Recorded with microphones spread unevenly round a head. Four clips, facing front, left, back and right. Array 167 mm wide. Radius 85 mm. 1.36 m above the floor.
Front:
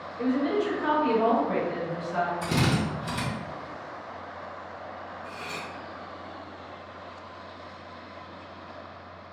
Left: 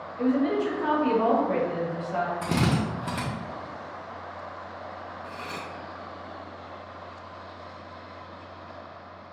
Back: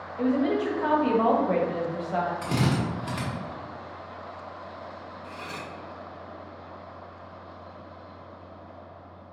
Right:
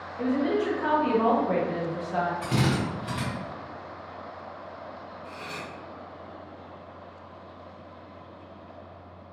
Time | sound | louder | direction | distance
0.2 | a woman speaking | left 1 dB, back 1 dB | straight behind | 1.4 m
2.4 | a drill | left 1 dB, even | 105° left | 1.1 m
5.2 | cutlery clinking | left 1 dB, back 1 dB | 105° left | 0.8 m